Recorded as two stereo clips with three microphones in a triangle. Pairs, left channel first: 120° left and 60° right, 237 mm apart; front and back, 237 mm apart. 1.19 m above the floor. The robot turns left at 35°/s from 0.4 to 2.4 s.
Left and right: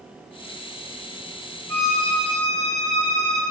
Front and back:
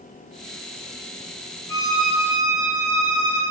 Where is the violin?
75° right, 1.5 m; by 3.4 s 100° right, 1.5 m.